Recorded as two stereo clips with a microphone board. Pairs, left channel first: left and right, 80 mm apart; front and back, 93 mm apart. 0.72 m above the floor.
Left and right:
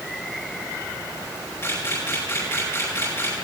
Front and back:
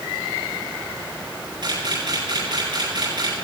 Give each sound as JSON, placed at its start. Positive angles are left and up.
{"t": 1.6, "sound": "a camera shutter", "azimuth_deg": 140, "distance_m": 9.5}